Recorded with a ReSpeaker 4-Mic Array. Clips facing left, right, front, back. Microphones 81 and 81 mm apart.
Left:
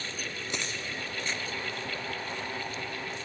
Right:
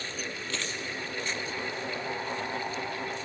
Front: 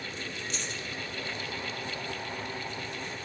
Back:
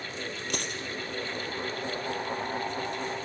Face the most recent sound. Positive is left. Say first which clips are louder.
# left 1 dB, back 3 dB
turn(degrees=160)